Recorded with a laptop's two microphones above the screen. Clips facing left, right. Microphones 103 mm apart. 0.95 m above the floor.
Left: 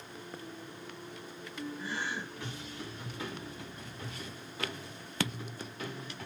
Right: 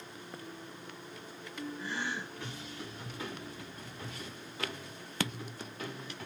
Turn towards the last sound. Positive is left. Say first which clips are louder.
# even
turn(degrees=10)  # may be behind; listen again after turning